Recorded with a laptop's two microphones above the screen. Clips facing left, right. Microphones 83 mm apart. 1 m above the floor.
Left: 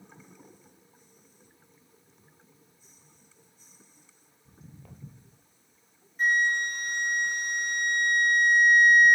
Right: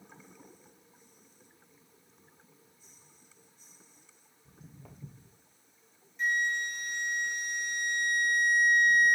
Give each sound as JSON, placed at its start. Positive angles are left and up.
{"t": 4.5, "sound": "footsteps", "side_deg": -10, "distance_m": 1.3}
{"t": 6.2, "sound": "a flute", "side_deg": 50, "distance_m": 0.6}